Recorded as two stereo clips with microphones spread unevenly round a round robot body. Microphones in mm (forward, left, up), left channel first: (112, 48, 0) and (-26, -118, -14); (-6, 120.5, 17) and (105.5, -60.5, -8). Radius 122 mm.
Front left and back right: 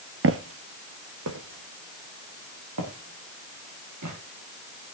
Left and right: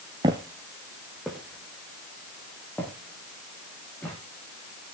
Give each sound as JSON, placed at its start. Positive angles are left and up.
{"t": 0.2, "sound": "footsteps", "azimuth_deg": -135, "distance_m": 1.0}